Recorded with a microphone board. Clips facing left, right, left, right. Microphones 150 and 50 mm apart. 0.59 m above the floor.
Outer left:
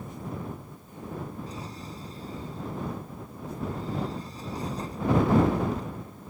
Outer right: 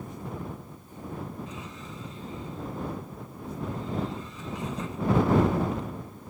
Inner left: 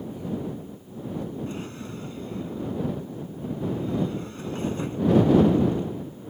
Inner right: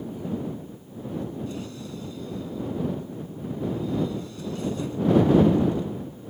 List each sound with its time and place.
1.5 s a drawer: 35° left (ahead or behind)